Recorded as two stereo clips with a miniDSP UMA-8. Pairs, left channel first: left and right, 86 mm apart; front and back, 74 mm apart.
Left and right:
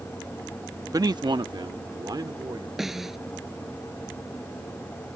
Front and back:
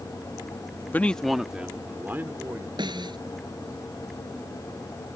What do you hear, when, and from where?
0.9 s a man speaking: 55° right; by 2.7 s 125° right
2.8 s a snare drum: 175° right